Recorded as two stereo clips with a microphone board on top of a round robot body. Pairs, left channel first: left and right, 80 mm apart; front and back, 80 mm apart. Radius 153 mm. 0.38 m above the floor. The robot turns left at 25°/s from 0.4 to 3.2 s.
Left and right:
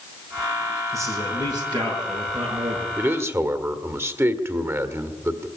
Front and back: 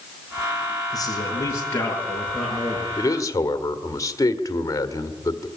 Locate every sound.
0.9 s a man speaking: 40° right, 7 m; by 2.9 s 90° right, 7 m
3.0 s a man speaking: 30° right, 1.8 m; by 5.5 s 40° right, 1.8 m